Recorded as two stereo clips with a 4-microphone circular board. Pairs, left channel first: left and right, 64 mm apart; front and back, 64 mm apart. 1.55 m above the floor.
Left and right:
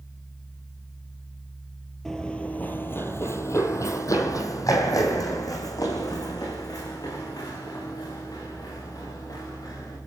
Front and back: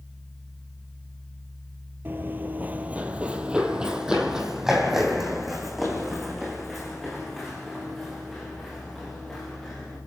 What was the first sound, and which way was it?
Running footsteps, 165° left.